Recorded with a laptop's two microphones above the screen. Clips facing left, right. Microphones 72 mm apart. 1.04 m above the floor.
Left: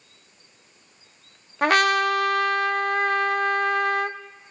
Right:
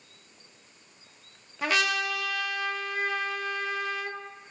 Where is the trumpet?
50° left (ahead or behind), 0.5 m.